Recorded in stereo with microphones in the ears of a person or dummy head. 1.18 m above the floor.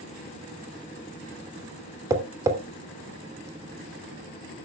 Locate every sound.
2.1 s tapping: 20° right (ahead or behind), 3 m